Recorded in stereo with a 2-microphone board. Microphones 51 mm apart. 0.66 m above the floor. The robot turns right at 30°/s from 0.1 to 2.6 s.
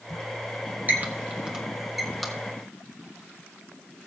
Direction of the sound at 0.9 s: 40° right (ahead or behind).